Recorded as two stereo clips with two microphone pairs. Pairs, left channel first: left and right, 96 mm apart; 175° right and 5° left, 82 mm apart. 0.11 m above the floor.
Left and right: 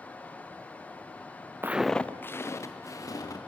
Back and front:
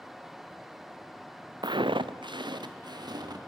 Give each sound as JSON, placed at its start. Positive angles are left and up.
{"t": 1.6, "sound": "footsteps", "azimuth_deg": -25, "distance_m": 0.5}